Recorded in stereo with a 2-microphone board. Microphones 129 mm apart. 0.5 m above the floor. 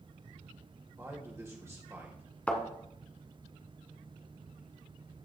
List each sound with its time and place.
1.0 s a man speaking: 20° right (ahead or behind), 1.8 m
2.5 s a thud: 10° left (ahead or behind), 1.5 m